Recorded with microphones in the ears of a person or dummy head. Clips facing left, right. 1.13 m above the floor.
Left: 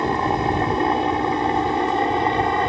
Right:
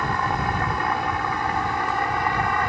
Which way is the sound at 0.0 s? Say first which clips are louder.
Left 5 dB; 25° left (ahead or behind).